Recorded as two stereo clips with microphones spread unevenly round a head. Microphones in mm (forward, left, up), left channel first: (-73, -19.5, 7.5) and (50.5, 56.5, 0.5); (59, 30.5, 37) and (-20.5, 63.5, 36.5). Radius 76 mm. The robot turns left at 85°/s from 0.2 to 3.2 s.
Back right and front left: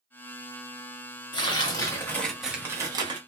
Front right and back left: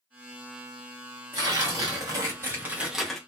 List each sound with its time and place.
1.3 s tearing paper: 145° right, 0.8 m; by 3.2 s 55° left, 0.8 m